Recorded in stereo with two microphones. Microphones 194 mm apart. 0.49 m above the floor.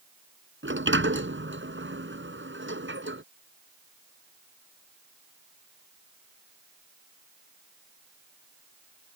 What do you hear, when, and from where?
0.6 s a sliding door: 80° right